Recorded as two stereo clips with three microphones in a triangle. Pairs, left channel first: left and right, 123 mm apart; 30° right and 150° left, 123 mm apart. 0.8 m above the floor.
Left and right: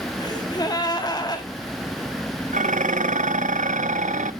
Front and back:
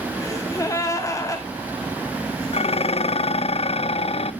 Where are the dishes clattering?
70° right, 0.5 m.